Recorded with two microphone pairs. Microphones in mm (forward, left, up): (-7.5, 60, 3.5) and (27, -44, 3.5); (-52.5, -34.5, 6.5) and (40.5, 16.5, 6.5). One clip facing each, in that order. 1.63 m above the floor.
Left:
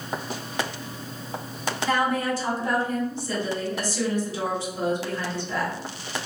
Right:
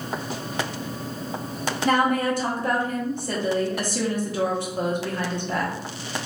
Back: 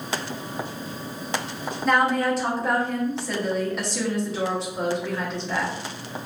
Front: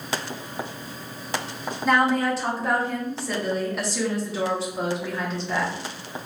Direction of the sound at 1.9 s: 60° right.